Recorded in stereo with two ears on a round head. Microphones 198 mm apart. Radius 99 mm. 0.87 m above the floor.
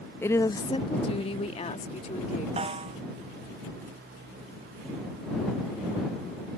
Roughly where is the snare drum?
Right.